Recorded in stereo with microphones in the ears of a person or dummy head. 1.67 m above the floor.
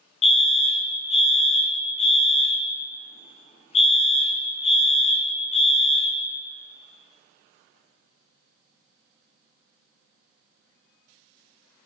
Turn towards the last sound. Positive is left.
turn(degrees=35)  # may be behind; listen again after turning